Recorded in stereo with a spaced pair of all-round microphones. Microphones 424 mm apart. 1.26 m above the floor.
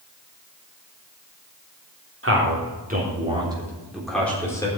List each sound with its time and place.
2.2 s a man speaking: 30° right (ahead or behind), 3.5 m; by 4.7 s 10° left (ahead or behind), 4 m